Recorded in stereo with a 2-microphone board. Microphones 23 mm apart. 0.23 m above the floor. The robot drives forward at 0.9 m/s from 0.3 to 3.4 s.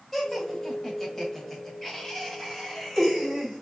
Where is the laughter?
15° left (ahead or behind), 1.7 m; by 3.6 s 10° left (ahead or behind), 2 m.